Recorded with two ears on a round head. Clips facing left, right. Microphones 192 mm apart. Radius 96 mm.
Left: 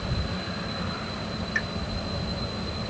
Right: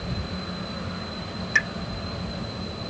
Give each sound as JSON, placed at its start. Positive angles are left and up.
{"t": 1.6, "sound": "a pop", "side_deg": -85}